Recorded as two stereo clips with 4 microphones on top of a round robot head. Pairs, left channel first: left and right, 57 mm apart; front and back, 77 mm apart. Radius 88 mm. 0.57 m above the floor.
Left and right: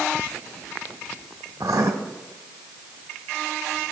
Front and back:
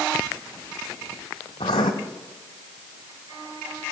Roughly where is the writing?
Ahead right.